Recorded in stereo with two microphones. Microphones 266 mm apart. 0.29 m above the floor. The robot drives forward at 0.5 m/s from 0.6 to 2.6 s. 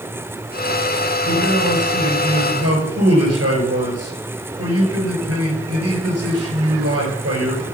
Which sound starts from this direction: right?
A man speaking, at 1.3 s.